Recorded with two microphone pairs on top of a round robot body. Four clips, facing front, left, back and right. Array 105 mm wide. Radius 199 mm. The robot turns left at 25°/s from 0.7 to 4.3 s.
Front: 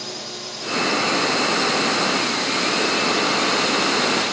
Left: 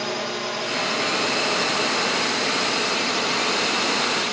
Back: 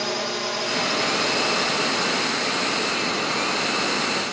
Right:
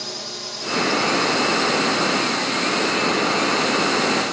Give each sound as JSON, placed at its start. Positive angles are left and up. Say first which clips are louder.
{"t": 0.0, "sound": "a drone", "louder": "left 7 dB, back 7 dB", "azimuth_deg": 145}